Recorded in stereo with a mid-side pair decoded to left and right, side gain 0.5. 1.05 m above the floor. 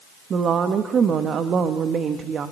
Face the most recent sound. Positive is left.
turn(degrees=-50)